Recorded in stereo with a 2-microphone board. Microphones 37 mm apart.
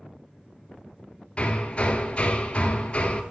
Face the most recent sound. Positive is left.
turn(degrees=35)  # may be behind; listen again after turning